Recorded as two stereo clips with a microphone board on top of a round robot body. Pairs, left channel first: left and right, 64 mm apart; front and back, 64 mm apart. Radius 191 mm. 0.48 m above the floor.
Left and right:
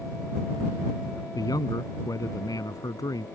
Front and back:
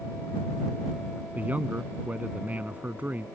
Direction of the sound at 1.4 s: 115° left.